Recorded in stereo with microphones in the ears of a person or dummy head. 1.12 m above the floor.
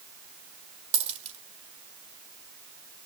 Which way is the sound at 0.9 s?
30° right (ahead or behind).